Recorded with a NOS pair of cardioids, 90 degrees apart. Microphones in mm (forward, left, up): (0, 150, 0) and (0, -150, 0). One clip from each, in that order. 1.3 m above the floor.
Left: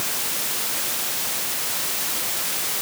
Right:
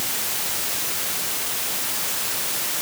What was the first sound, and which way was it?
Only background noise.